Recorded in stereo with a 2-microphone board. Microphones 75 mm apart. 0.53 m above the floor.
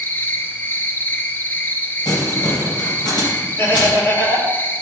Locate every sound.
0.0 s an insect: 25° left (ahead or behind), 0.7 m
2.0 s crumpling: 70° left (ahead or behind), 3 m
3.6 s laughter: 35° left (ahead or behind), 1.6 m